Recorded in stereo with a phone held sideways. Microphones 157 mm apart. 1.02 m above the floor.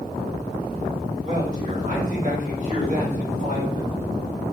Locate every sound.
1.2 s a man speaking: 40° right (ahead or behind), 4.5 m